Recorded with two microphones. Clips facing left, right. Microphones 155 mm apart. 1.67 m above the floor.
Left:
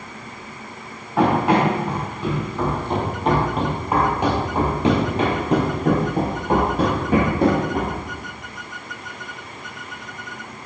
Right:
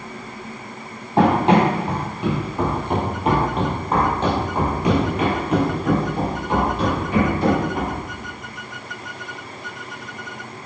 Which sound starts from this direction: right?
Running footsteps, at 1.2 s.